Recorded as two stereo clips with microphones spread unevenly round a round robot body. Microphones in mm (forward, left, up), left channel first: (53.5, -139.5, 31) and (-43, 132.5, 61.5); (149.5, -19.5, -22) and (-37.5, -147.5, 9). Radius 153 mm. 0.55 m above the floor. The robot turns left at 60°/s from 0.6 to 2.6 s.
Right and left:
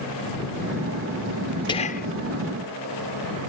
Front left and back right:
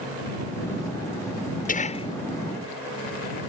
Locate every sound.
1.7 s whispering: 5° right; by 2.1 s 30° right